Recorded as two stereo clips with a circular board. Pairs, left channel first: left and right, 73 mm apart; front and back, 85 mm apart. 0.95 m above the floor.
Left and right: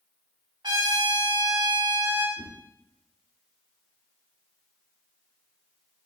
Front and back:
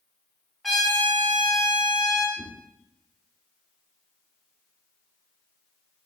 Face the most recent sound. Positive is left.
turn(degrees=75)